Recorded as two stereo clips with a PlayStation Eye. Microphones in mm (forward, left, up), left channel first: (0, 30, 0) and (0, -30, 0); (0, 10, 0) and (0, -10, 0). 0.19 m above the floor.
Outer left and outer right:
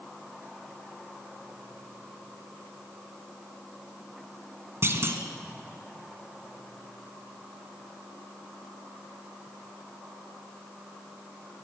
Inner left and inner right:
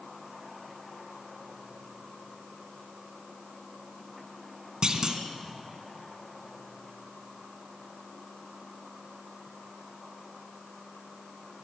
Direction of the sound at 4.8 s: 45° right (ahead or behind).